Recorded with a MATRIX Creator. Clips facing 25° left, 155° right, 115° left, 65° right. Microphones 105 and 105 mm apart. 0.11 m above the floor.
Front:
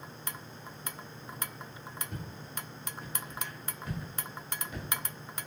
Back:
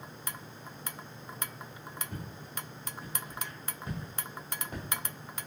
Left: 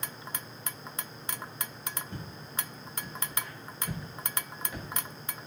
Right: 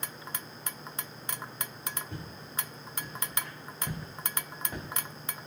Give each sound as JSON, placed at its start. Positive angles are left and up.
{"t": 2.1, "sound": "footsteps", "azimuth_deg": -70, "distance_m": 1.8}